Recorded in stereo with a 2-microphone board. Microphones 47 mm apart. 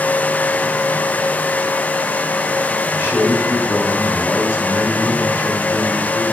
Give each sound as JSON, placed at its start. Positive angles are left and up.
{"t": 2.9, "sound": "a man speaking", "side_deg": 75, "distance_m": 3.0}